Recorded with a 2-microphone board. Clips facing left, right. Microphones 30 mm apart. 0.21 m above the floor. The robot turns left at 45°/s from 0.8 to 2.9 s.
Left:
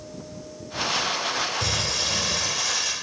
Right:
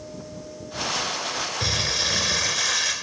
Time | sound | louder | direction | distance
1.6 | crumpling | right 1 dB | 30° right | 1.3 m